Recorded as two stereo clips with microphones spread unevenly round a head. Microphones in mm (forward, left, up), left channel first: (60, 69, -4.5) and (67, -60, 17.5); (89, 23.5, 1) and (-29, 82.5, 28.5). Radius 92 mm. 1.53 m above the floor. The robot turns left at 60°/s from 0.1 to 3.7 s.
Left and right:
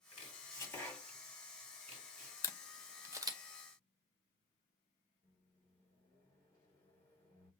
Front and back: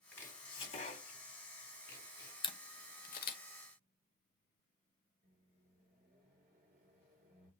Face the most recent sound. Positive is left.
turn(degrees=175)